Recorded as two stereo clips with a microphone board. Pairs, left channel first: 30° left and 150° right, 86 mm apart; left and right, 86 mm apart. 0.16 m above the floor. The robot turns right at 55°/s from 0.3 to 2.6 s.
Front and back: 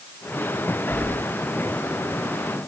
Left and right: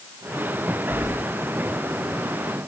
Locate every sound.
0.9 s keys jangling: 55° right, 1.5 m; by 1.1 s 40° right, 1.5 m